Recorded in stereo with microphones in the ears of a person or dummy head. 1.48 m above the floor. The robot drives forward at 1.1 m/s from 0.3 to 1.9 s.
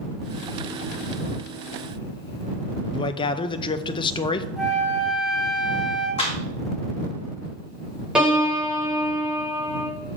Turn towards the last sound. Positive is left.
turn(degrees=-5)  # may be behind; listen again after turning